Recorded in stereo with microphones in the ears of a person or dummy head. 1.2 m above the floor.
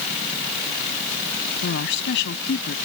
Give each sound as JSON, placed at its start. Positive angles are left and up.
{"t": 1.6, "sound": "a woman speaking", "side_deg": 75}